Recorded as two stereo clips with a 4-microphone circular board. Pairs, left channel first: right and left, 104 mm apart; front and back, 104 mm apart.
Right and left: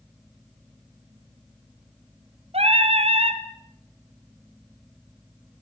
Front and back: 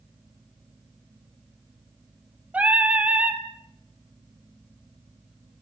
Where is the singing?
105° left, 1.7 m.